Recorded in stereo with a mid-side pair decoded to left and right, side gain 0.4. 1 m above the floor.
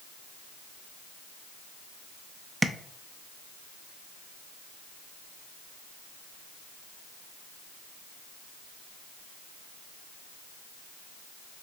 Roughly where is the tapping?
Ahead.